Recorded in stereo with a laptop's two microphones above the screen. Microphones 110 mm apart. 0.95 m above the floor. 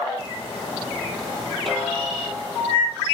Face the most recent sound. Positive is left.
turn(degrees=0)  # may be behind; listen again after turning